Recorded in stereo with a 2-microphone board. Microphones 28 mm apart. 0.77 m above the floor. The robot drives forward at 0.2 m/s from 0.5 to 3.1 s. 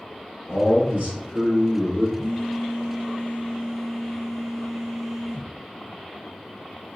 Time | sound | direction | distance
0.5 | a man speaking | 55° right (ahead or behind) | 1.3 m
2.2 | a phone buzzing | 50° right (ahead or behind) | 1.6 m